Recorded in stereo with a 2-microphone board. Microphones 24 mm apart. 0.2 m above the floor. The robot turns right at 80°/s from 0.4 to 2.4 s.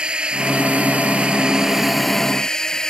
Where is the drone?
130° right; by 2.9 s 30° left.